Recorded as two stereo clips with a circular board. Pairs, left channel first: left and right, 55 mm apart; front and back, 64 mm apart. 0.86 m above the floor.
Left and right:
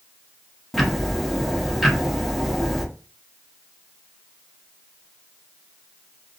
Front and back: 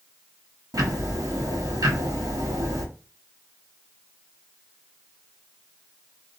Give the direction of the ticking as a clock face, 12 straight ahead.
6 o'clock.